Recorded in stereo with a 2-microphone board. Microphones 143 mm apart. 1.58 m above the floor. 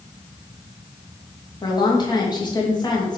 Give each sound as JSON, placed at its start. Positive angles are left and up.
{"t": 1.6, "sound": "a woman speaking", "side_deg": 30, "distance_m": 2.5}